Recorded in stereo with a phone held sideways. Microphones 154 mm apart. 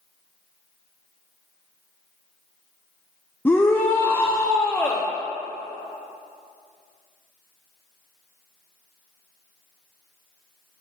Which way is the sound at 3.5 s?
15° left (ahead or behind).